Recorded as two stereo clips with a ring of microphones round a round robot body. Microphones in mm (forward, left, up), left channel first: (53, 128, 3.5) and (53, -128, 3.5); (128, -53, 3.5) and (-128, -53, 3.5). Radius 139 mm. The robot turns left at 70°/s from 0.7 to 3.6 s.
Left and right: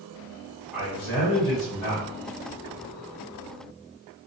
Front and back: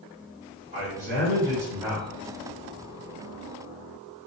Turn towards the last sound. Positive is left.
turn(degrees=-15)